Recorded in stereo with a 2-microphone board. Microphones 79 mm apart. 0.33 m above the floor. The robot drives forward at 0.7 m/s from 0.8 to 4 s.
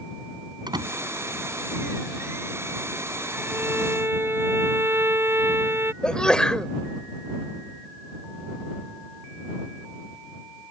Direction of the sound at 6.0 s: 10° left (ahead or behind).